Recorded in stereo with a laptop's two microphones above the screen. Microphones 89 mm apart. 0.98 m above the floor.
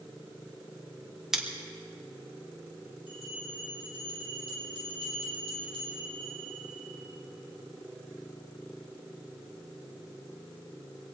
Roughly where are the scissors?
Centre.